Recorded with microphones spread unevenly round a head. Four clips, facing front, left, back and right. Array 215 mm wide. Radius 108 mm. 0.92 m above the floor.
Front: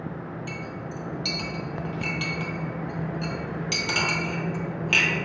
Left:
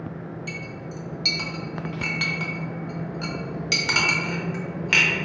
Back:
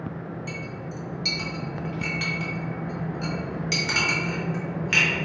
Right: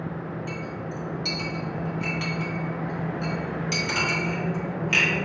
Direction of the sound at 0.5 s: 65° left.